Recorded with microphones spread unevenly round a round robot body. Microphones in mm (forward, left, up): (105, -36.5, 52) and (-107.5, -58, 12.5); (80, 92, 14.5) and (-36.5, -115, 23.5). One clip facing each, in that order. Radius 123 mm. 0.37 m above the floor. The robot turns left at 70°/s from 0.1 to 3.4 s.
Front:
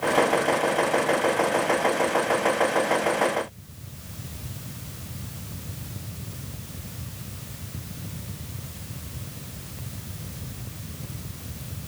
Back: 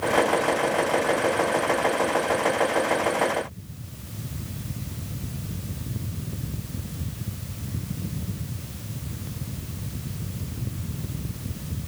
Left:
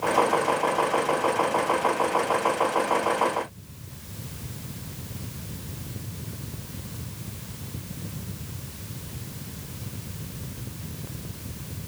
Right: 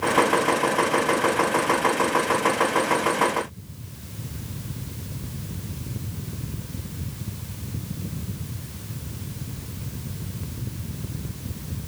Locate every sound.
Only background noise.